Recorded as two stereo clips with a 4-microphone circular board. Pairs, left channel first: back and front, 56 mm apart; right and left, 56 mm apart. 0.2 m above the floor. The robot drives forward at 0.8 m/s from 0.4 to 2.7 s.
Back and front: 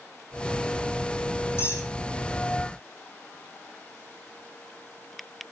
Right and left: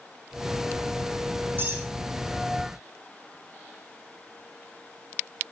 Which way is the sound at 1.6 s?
140° left.